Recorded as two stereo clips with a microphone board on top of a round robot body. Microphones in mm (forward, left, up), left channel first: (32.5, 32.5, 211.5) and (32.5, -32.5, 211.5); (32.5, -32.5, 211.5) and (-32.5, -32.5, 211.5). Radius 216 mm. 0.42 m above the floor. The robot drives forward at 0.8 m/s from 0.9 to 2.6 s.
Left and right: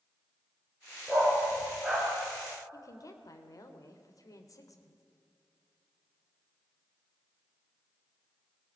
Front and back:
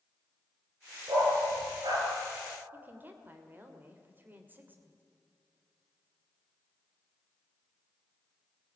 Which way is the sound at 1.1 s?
175° right.